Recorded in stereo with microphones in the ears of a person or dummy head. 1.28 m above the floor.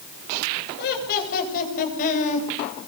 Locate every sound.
0.8 s laughter: 55° left (ahead or behind), 8.5 m; by 2.5 s 40° left (ahead or behind), 7.5 m